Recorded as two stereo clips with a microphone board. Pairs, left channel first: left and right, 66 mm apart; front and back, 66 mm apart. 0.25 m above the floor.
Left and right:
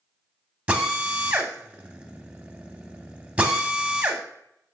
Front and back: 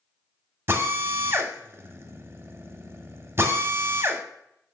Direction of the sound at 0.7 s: 155° right.